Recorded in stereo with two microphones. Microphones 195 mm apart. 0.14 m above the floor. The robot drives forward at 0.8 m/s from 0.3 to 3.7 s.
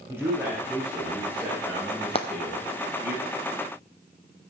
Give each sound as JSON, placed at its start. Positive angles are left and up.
{"t": 0.1, "sound": "a man speaking", "side_deg": -15, "distance_m": 6.0}
{"t": 2.1, "sound": "frying", "side_deg": 30, "distance_m": 1.2}